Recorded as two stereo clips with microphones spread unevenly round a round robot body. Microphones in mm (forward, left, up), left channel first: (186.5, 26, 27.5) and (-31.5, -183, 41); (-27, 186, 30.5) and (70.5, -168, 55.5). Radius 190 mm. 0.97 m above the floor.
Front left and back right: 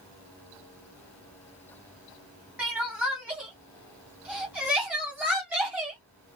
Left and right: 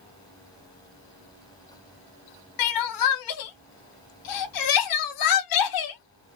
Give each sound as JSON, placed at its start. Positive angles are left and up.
{"t": 2.6, "sound": "crying", "azimuth_deg": 140, "distance_m": 0.7}